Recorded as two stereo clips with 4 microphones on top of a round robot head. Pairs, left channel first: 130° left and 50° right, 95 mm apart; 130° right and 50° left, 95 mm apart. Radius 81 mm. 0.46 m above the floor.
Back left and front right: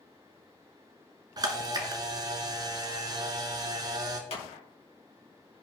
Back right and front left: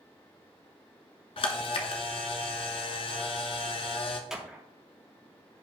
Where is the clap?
130° left, 3 m.